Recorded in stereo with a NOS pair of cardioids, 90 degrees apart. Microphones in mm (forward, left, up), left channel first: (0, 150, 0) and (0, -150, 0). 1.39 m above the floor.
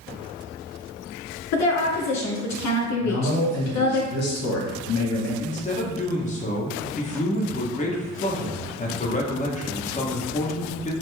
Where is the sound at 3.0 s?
60° left, 1.5 m.